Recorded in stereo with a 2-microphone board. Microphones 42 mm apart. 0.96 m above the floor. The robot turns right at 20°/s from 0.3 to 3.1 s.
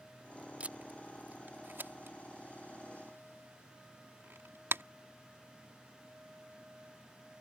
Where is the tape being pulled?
35° right (ahead or behind); by 4.8 s 75° right (ahead or behind).